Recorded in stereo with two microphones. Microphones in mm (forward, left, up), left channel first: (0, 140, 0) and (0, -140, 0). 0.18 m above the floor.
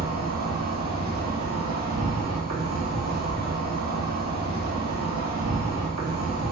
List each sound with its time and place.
0.0 s an insect: 80° right, 0.9 m